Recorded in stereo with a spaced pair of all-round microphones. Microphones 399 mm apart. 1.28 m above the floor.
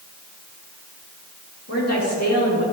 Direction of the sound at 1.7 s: 40° left (ahead or behind).